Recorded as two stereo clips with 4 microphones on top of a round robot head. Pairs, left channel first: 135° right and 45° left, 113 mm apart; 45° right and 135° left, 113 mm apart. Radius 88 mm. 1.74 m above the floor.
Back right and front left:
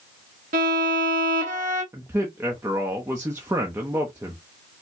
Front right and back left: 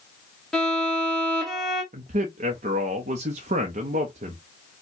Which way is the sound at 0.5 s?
45° left.